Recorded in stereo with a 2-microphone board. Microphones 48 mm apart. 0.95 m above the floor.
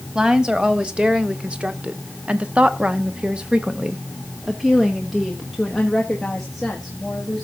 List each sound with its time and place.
0.1 s a woman speaking: 20° right (ahead or behind), 1.7 m; by 7.4 s centre (ahead or behind), 2.5 m